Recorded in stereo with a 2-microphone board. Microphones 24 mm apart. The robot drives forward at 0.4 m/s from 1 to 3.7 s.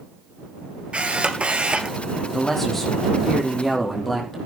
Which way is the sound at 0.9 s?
55° right (ahead or behind).